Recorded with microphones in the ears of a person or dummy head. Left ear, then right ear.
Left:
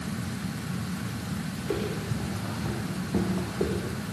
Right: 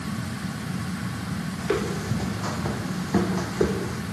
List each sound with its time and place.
1.6 s footsteps: 45° right (ahead or behind), 4.5 m; by 4.0 s 60° right (ahead or behind), 4 m